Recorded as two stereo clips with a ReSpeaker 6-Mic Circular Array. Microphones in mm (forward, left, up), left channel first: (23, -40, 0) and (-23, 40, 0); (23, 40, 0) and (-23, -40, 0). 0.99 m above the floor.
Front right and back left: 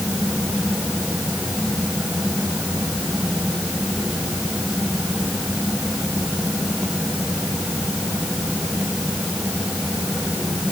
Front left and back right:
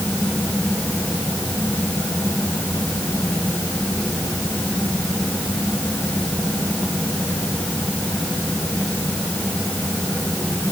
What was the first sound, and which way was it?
Only background noise.